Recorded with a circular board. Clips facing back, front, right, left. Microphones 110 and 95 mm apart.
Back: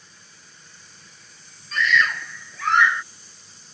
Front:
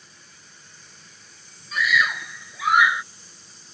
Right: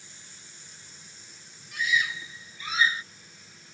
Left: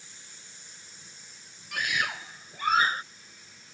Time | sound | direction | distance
1.7 | a scream | 80° left | ?